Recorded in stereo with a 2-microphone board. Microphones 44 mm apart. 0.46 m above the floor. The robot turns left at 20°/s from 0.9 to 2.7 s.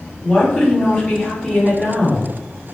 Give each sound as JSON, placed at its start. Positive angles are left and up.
{"t": 0.2, "sound": "a woman speaking", "side_deg": 30, "distance_m": 1.6}